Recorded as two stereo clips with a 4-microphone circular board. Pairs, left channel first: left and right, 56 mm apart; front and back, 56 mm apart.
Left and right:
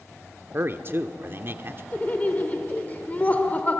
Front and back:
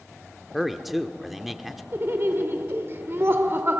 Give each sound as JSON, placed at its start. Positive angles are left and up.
{"t": 0.5, "sound": "a man speaking", "azimuth_deg": -95, "distance_m": 1.2}
{"t": 1.9, "sound": "laughter", "azimuth_deg": 145, "distance_m": 1.4}